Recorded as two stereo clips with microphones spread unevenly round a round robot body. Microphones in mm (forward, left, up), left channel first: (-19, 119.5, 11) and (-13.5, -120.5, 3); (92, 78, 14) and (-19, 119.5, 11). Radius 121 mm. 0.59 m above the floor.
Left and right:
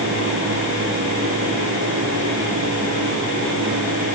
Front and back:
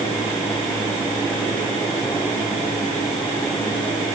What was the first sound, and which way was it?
Only background noise.